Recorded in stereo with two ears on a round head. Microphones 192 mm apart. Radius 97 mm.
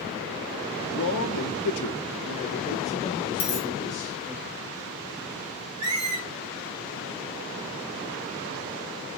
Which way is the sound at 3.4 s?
45° left (ahead or behind).